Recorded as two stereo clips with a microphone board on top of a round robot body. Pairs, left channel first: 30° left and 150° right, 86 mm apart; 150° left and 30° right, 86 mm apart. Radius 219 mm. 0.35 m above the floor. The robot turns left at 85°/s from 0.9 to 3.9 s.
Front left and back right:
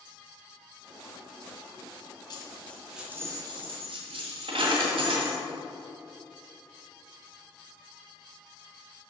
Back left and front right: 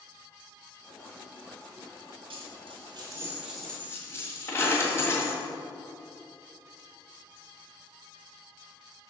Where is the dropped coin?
10° right, 1.6 m; by 5.4 s 145° right, 1.6 m.